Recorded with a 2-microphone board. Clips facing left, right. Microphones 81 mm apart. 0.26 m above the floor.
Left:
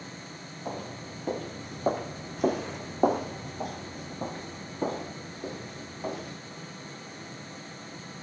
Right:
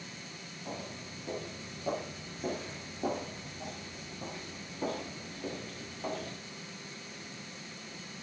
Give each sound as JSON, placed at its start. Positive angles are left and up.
{"t": 0.7, "sound": "footsteps", "side_deg": 45, "distance_m": 1.6}